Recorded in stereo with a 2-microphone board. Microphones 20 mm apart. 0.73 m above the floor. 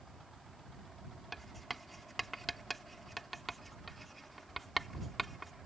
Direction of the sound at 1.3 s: 10° left (ahead or behind).